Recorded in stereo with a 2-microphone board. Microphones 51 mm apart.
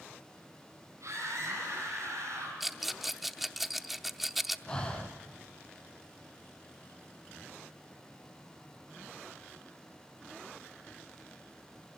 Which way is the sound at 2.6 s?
5° right (ahead or behind).